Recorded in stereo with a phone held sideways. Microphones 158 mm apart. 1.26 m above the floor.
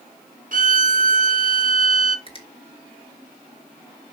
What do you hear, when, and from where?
0.5 s a violin: 60° right (ahead or behind), 1.2 m
2.3 s a finger snap: 35° left (ahead or behind), 2.5 m